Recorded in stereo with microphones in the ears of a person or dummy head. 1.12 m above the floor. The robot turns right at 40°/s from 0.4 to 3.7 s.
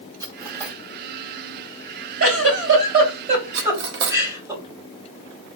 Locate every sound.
0.2 s cutlery clinking: 20° right (ahead or behind), 1.0 m; by 0.8 s 5° right (ahead or behind), 1.0 m
2.2 s a giggle: 75° right (ahead or behind), 3 m; by 4.5 s 20° right (ahead or behind), 3 m
3.5 s cutlery clinking: 60° right (ahead or behind), 1.0 m; by 4.2 s 55° right (ahead or behind), 1.0 m